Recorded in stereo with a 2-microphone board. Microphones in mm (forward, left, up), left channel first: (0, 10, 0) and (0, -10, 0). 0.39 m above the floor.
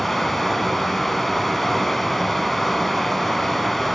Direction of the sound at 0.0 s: 5° left (ahead or behind).